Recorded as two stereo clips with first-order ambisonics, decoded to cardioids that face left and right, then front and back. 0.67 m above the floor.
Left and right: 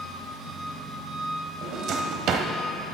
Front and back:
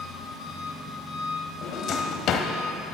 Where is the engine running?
55° right, 4 m.